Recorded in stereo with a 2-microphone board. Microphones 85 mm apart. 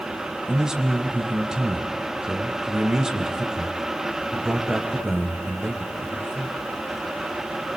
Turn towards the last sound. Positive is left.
turn(degrees=-5)  # may be behind; listen again after turning